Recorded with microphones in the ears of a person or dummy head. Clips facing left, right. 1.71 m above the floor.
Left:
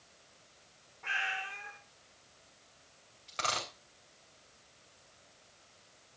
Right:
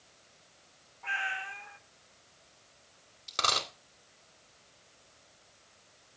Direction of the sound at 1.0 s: 15° left (ahead or behind).